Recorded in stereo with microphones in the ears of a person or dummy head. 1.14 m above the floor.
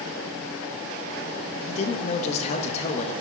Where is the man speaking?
40° left (ahead or behind), 1.2 m.